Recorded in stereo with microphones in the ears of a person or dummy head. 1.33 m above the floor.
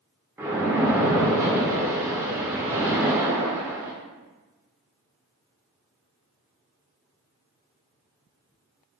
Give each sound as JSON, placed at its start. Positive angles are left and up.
{"t": 0.4, "sound": "a splash", "side_deg": -10, "distance_m": 0.5}